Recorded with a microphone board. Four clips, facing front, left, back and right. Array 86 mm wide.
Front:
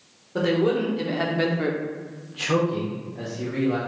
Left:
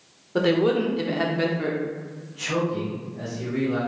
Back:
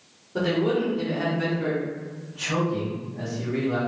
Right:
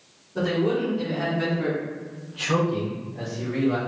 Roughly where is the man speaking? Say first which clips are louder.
Left 3 dB, front 2 dB; left.